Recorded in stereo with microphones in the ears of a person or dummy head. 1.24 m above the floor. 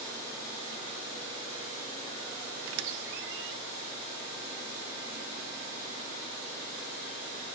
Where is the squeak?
65° right (ahead or behind), 0.6 m.